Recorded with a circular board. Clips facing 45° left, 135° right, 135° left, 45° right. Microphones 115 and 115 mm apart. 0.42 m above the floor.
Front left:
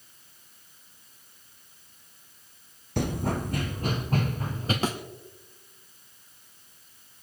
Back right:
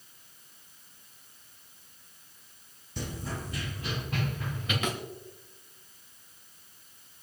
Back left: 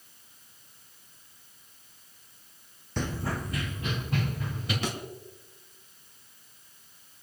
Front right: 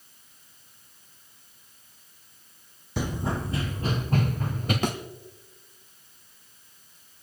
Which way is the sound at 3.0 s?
35° left.